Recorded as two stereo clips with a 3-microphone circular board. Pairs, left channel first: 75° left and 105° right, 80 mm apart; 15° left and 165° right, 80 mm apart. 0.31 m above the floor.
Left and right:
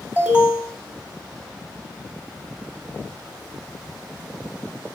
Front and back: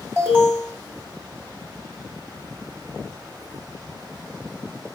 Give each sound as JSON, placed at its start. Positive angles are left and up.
{"t": 0.2, "sound": "an alarm", "azimuth_deg": -145, "distance_m": 2.0}